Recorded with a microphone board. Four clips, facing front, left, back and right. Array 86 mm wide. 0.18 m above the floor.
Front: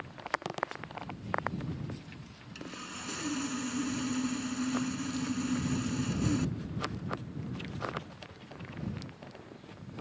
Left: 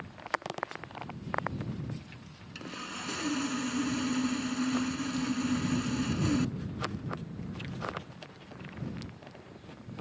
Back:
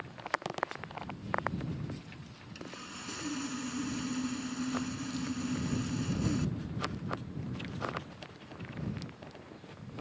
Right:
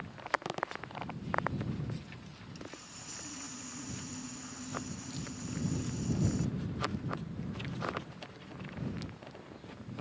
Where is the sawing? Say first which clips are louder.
Left 10 dB, front 2 dB; 80° left.